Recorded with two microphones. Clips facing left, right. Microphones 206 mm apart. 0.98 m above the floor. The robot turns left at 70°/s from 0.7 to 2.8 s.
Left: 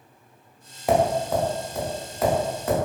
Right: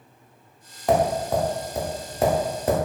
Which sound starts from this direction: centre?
Tapping, at 0.9 s.